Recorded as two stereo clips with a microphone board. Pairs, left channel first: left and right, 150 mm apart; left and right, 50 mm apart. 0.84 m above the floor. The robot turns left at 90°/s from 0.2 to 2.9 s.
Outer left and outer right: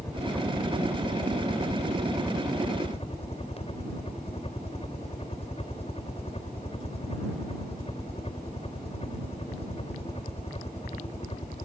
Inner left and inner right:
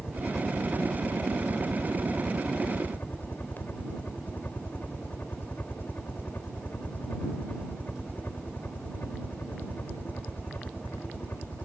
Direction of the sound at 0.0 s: 20° left.